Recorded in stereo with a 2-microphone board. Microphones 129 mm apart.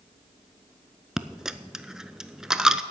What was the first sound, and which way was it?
A dropped coin, 5° right (ahead or behind).